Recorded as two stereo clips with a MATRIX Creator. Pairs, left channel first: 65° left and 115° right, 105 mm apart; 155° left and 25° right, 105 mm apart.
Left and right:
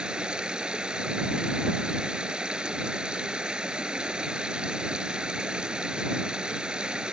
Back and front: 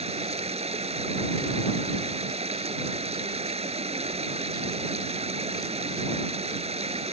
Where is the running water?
30° right.